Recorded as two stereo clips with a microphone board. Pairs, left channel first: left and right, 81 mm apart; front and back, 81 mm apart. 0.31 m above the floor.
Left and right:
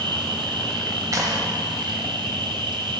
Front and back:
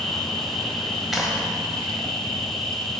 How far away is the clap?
About 1.3 m.